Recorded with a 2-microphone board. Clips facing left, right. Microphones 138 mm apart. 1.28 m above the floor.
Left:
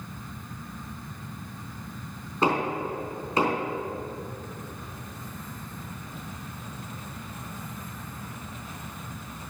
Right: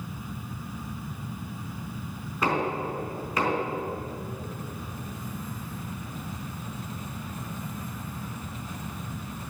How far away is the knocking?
About 4 m.